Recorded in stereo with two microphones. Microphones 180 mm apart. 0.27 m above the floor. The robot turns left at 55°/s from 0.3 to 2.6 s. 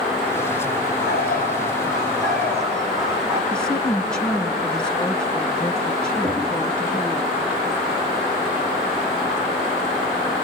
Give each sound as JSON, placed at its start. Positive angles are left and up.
{"t": 1.0, "sound": "a bird", "azimuth_deg": 70, "distance_m": 7.5}
{"t": 3.5, "sound": "a woman speaking", "side_deg": 5, "distance_m": 2.5}
{"t": 6.2, "sound": "knocking", "side_deg": 5, "distance_m": 7.0}